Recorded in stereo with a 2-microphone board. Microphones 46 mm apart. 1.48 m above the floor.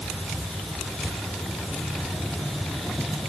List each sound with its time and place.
Only background noise.